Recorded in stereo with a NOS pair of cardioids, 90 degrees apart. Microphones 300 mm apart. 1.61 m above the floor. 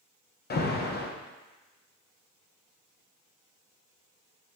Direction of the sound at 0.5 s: 35° left.